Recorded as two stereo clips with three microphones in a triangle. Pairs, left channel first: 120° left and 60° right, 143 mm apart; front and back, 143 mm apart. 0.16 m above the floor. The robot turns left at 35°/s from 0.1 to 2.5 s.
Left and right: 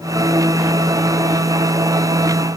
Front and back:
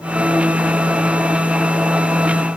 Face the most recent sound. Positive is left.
No sound to turn to.